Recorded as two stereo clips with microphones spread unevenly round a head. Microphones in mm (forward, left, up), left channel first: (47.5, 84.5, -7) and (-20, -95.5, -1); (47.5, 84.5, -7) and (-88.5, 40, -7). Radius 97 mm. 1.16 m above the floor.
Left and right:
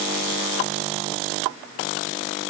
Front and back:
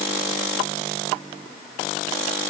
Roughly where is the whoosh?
No whoosh in this recording.